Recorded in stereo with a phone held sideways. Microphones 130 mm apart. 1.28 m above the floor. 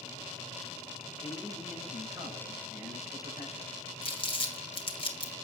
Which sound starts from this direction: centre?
A man speaking, at 1.2 s.